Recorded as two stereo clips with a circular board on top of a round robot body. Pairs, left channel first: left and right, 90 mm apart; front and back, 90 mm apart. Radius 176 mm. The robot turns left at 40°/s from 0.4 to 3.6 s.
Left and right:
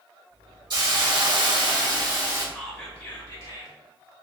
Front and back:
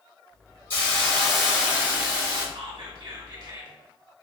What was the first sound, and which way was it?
A hiss, 65° right.